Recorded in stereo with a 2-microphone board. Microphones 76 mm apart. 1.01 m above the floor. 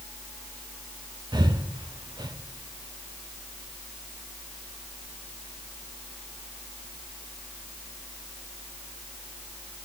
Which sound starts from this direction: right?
Breathing, at 1.3 s.